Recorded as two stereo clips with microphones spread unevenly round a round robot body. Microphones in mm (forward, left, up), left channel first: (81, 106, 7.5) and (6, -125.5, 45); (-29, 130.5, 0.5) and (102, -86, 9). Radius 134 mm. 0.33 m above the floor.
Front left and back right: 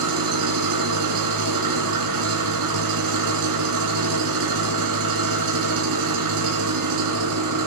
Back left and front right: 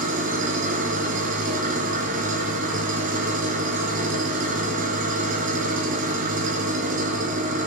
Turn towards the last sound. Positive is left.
turn(degrees=-120)